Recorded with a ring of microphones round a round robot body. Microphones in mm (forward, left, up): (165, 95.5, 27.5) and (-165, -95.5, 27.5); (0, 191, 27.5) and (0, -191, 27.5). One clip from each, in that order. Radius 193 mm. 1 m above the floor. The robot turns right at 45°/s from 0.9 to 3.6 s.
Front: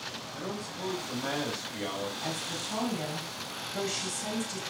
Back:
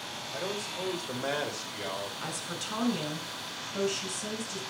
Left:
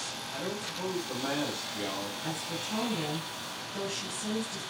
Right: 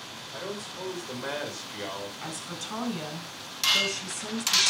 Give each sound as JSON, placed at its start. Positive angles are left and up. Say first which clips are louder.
{"t": 0.3, "sound": "a man speaking", "louder": "back 3 dB, right 2 dB", "azimuth_deg": -115, "distance_m": 5.0}
{"t": 2.2, "sound": "a woman speaking", "louder": "front 1 dB, left 1 dB", "azimuth_deg": -115, "distance_m": 6.0}